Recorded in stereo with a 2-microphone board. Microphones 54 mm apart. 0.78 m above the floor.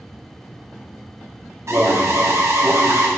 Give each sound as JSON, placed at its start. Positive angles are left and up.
{"t": 1.7, "sound": "an alarm", "side_deg": -60, "distance_m": 1.2}